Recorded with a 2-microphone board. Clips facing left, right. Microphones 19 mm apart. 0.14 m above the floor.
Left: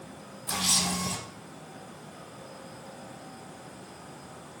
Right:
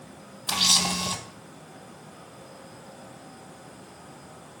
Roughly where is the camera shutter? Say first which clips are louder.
Right 5 dB; right.